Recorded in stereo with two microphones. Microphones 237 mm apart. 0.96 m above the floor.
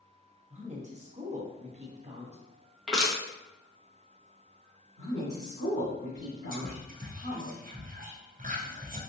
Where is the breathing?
No breathing in this recording.